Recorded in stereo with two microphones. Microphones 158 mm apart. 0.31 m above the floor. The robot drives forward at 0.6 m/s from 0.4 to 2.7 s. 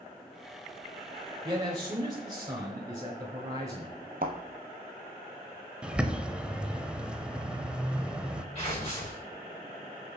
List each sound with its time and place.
1.4 s a man speaking: 30° right (ahead or behind), 1.0 m; by 3.9 s 20° right (ahead or behind), 1.3 m
4.2 s a thud: 65° right (ahead or behind), 1.0 m
5.8 s a bird: 5° right (ahead or behind), 0.5 m
8.6 s tearing paper: 35° left (ahead or behind), 4 m